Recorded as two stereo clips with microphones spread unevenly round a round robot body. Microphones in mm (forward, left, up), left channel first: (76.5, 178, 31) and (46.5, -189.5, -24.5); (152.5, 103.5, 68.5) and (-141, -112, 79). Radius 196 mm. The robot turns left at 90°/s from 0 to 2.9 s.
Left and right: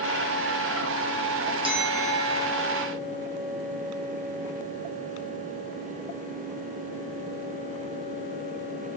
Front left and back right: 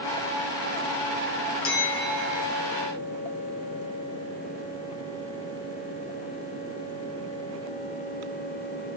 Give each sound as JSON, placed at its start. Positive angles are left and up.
{"t": 1.6, "sound": "a bell", "azimuth_deg": -15, "distance_m": 1.6}